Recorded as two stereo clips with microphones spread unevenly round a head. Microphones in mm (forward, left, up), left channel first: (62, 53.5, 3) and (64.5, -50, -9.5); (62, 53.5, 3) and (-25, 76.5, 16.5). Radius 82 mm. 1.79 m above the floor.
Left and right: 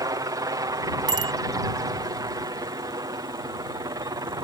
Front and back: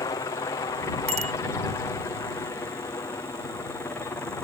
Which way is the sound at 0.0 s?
50° right.